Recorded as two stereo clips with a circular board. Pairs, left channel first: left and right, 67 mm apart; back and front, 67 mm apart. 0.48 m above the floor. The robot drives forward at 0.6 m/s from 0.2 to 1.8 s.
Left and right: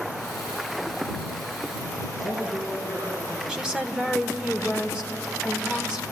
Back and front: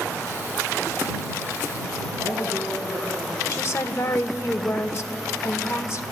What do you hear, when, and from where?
2.2 s a man speaking: 115° right, 6 m
3.5 s a woman speaking: 160° right, 1.5 m